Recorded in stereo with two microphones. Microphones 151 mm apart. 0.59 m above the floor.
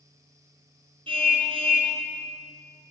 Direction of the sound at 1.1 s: 35° right (ahead or behind).